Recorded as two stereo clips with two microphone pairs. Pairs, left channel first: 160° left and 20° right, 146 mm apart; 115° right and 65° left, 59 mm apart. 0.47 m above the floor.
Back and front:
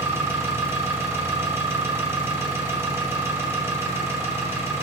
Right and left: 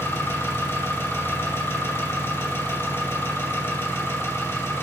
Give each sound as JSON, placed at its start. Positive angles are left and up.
{"t": 0.0, "sound": "an engine running", "azimuth_deg": -85, "distance_m": 0.9}